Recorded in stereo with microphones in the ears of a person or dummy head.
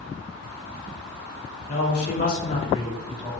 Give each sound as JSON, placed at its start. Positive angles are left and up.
{"t": 1.7, "sound": "a man speaking", "side_deg": 60, "distance_m": 1.2}